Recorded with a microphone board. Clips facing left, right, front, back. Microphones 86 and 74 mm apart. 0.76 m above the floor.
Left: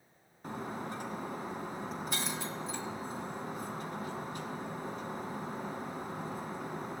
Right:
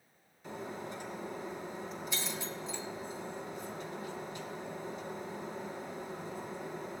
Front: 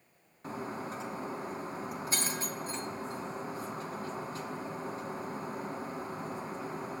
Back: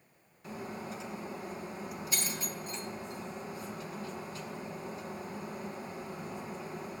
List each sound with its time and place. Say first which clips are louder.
0.4 s breaking glass: left 2 dB, front 3 dB; 50° left, 1.9 m